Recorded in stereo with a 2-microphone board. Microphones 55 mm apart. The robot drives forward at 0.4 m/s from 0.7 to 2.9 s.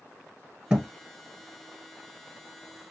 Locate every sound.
0.7 s a thud: 15° right (ahead or behind), 1.3 m